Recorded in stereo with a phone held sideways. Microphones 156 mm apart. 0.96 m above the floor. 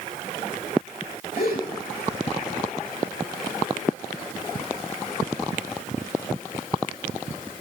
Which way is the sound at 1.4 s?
80° left.